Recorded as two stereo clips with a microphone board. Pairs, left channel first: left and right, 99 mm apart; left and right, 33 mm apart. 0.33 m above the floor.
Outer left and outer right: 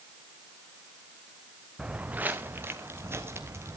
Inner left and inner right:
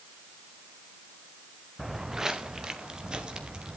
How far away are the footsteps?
About 1.2 m.